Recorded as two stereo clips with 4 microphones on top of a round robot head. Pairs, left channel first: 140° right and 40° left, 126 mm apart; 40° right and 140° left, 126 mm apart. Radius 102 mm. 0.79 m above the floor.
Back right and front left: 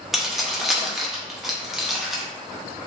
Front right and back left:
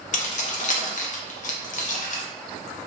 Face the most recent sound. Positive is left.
turn(degrees=-45)